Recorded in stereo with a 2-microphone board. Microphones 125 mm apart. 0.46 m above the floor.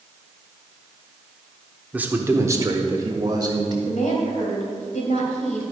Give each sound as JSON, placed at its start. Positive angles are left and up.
{"t": 1.9, "sound": "a man speaking", "side_deg": -10, "distance_m": 0.9}
{"t": 3.9, "sound": "a woman speaking", "side_deg": 65, "distance_m": 2.5}